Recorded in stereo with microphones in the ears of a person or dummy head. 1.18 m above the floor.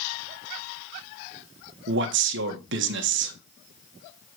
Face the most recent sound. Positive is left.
turn(degrees=-60)  # may be behind; listen again after turning